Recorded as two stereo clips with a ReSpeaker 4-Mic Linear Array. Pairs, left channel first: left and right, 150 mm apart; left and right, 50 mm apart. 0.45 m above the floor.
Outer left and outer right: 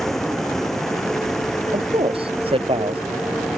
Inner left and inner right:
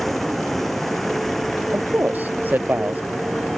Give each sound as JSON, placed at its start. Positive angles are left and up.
{"t": 0.0, "sound": "a vehicle", "side_deg": 0}
{"t": 1.7, "sound": "a man speaking", "side_deg": -40}